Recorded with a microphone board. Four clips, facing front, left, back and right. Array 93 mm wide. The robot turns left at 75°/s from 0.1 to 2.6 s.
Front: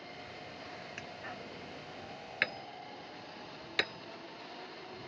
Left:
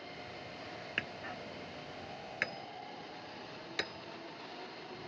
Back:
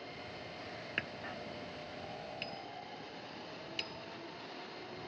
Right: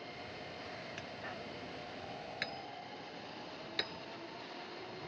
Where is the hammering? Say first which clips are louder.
Left 3 dB, back 5 dB; 130° left; by 5.1 s 10° left.